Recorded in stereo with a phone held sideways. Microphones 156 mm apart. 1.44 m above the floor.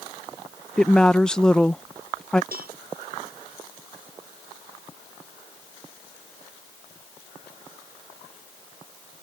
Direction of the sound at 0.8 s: 5° left (ahead or behind).